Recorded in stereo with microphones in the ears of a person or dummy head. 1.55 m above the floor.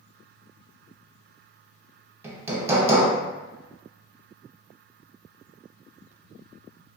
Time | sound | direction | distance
2.2 | hammering | 15° right (ahead or behind) | 0.5 m